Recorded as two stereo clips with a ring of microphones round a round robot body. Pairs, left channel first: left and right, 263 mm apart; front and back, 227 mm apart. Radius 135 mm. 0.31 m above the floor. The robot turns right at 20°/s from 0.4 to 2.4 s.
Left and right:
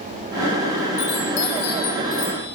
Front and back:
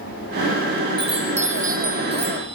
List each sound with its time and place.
1.0 s a chime: 110° left, 8.5 m; by 2.6 s 140° left, 8.5 m